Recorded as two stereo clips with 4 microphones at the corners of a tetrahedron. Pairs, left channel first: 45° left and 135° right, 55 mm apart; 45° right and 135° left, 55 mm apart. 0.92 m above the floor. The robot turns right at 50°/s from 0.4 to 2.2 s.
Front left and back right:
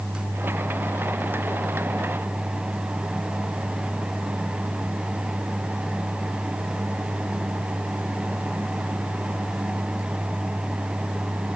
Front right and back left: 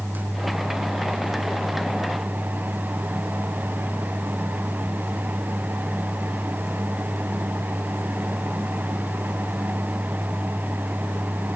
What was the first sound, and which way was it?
Only background noise.